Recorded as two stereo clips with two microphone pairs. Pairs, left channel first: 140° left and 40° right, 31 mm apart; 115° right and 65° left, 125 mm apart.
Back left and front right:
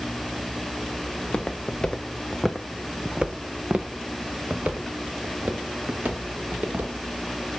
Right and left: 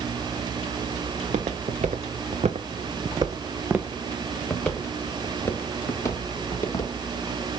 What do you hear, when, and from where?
1.1 s footsteps: 80° left, 1.3 m; by 6.9 s 50° right, 2.5 m